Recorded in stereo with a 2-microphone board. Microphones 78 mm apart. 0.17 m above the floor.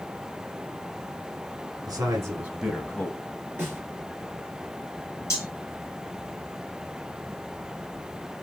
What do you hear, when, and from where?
1.9 s a man speaking: 50° right (ahead or behind), 1.4 m; by 3.3 s 35° left (ahead or behind), 1.3 m
3.6 s a snare drum: 25° right (ahead or behind), 2.5 m
5.3 s cutlery clinking: 35° left (ahead or behind), 2.0 m